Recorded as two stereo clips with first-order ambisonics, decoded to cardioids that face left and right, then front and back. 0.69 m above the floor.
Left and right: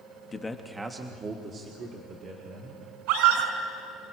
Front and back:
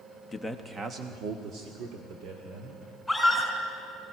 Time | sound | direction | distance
0.3 | a man speaking | 55° left | 1.0 m
3.1 | a scream | 90° right | 6 m